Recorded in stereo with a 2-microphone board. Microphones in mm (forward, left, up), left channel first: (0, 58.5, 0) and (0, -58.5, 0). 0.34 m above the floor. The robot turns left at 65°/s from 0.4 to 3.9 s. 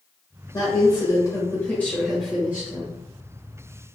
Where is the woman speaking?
105° left, 0.9 m; by 3.0 s 55° right, 0.9 m.